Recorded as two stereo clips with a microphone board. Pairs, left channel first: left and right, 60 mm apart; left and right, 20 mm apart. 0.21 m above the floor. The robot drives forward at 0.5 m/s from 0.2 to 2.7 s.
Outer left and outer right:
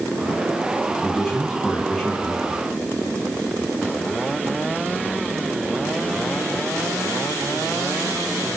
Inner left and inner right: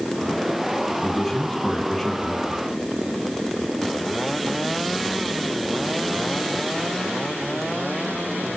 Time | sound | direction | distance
1.0 | a man speaking | 5° left (ahead or behind) | 1.9 m